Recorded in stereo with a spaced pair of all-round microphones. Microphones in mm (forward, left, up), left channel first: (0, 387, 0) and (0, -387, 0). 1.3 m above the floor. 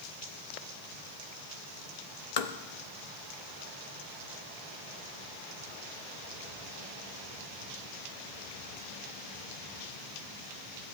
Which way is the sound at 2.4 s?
55° left (ahead or behind).